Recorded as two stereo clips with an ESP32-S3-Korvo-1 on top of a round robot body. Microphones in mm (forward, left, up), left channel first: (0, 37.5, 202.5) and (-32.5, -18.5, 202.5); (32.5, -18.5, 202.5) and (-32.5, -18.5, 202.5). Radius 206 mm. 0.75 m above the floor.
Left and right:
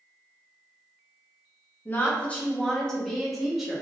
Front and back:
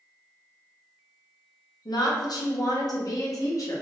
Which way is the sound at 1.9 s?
Straight ahead.